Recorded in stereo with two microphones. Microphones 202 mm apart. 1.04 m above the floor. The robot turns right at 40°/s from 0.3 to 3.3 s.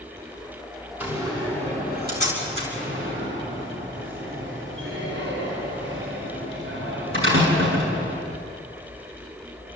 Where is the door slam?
10° right (ahead or behind), 6 m; by 8.2 s 80° right, 6 m.